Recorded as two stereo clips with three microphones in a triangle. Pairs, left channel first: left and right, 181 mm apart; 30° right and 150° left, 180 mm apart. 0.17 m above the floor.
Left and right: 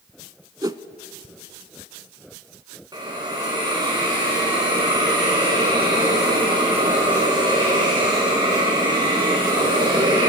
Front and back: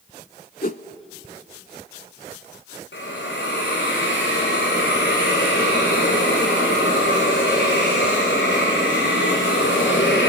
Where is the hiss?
25° right, 4.5 m.